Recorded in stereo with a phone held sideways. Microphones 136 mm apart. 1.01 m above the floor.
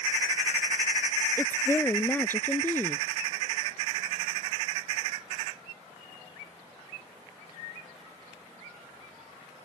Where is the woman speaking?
15° left (ahead or behind).